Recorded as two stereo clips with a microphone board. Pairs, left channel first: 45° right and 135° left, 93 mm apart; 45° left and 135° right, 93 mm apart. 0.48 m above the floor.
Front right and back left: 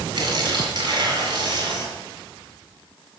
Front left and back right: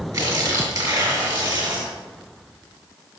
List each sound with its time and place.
0.1 s tearing paper: straight behind, 3.5 m